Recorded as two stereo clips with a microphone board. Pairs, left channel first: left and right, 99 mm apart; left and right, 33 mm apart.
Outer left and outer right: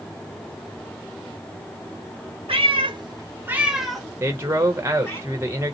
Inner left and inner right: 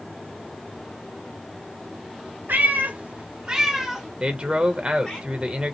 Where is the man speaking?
25° right (ahead or behind), 1.0 m.